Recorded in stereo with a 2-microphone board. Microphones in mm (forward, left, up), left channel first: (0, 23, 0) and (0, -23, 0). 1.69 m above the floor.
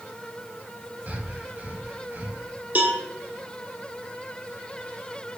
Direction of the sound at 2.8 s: 40° right (ahead or behind).